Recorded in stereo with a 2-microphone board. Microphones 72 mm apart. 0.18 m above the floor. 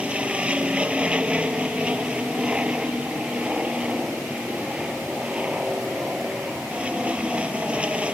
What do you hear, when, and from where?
0.0 s an aircraft: 15° right (ahead or behind)